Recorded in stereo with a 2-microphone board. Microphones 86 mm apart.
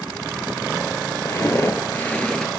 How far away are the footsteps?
About 0.8 m.